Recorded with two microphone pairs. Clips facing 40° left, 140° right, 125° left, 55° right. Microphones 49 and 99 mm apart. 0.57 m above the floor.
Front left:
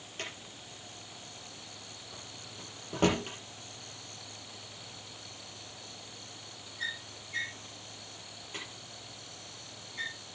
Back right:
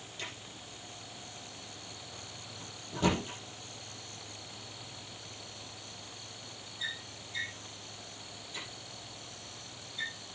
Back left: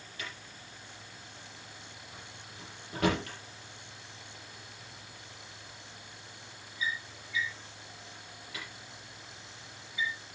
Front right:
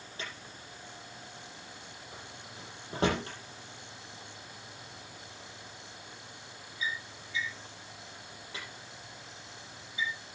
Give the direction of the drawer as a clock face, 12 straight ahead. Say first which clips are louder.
Front left 2 dB, front right 1 dB; 12 o'clock.